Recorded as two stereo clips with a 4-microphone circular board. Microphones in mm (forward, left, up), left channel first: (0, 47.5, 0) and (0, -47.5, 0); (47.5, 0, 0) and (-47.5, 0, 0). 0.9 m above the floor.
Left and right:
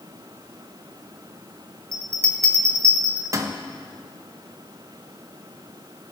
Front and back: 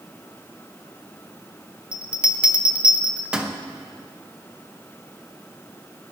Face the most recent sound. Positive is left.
turn(degrees=-105)